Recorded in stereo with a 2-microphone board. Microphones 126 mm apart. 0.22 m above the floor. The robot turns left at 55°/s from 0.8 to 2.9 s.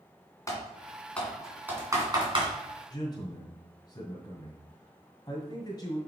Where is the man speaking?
30° left (ahead or behind), 1.8 m.